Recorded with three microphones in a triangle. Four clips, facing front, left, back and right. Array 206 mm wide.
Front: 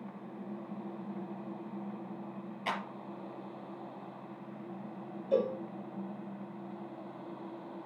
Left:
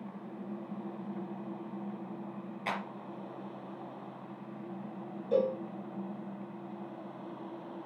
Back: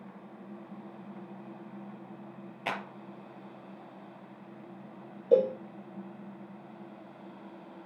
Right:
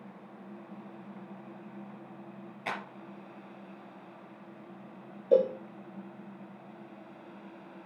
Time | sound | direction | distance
2.7 | a clap | straight behind | 3 m
5.3 | a cowbell | 150° right | 4.5 m